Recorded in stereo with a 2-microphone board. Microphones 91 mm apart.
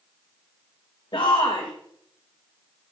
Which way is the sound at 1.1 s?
60° left (ahead or behind).